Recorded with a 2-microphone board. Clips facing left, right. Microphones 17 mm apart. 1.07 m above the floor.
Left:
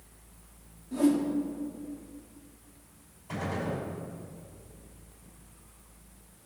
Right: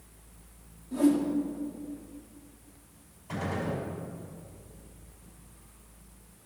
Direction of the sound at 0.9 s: 10° left (ahead or behind).